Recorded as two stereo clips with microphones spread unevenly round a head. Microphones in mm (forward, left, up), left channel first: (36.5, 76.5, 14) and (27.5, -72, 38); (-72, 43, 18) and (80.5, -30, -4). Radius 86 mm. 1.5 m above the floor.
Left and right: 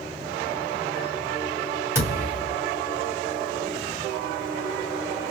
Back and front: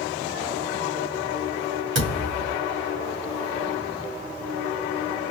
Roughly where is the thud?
Ahead right.